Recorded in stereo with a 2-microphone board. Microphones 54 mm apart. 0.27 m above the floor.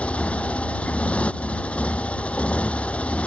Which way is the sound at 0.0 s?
25° left (ahead or behind).